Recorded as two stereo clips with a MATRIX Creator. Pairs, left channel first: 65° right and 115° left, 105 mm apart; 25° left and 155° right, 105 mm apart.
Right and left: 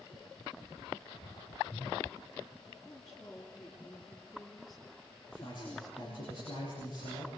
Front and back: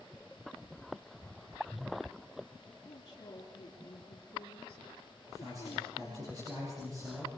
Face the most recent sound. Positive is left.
turn(degrees=-100)